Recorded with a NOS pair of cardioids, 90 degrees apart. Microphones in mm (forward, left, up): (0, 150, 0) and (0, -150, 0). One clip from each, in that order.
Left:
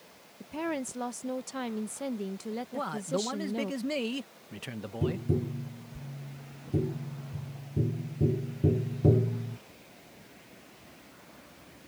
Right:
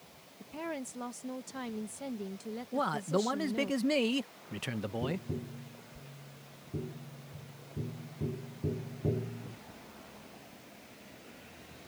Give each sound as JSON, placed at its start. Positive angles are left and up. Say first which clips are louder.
{"t": 0.4, "sound": "a woman speaking", "louder": "left 6 dB", "azimuth_deg": 30}
{"t": 2.7, "sound": "a man speaking", "louder": "right 3 dB", "azimuth_deg": -15}
{"t": 5.0, "sound": "tapping", "louder": "left 6 dB", "azimuth_deg": 45}